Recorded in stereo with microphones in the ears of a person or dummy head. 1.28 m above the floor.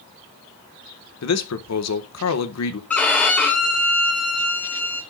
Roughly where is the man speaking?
Left.